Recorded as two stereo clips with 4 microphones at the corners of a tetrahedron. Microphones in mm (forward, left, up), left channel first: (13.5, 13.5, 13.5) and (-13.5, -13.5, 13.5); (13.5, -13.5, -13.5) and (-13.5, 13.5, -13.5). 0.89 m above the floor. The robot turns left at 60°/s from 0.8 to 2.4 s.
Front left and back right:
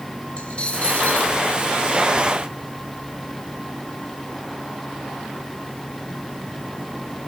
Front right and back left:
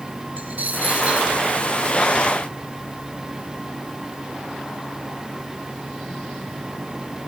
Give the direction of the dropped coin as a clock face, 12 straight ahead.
9 o'clock.